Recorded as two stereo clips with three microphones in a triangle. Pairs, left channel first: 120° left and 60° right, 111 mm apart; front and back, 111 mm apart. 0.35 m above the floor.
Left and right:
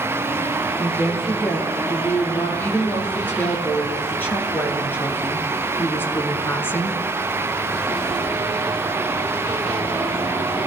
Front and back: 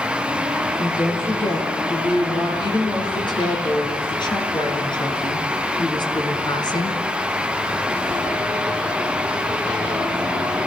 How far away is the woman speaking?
About 8.5 m.